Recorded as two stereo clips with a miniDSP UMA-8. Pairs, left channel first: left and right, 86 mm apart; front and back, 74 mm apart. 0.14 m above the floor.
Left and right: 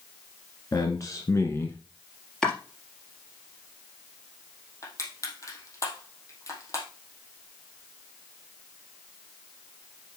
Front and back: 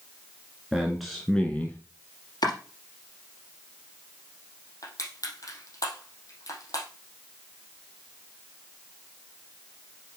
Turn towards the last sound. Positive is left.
turn(degrees=40)